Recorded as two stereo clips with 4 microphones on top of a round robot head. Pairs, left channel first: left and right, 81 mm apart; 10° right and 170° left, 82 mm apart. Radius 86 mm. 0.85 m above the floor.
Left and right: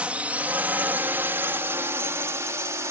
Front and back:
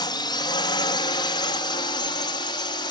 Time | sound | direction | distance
0.0 | a drone | 15° right | ?